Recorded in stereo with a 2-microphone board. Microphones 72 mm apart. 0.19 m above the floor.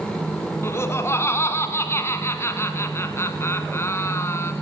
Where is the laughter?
40° left (ahead or behind), 1.8 m.